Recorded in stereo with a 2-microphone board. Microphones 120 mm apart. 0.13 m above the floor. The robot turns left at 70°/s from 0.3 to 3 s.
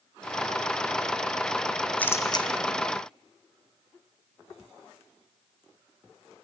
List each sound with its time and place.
2.0 s a camera shutter: 10° left (ahead or behind), 1.2 m; by 2.5 s 45° left (ahead or behind), 1.2 m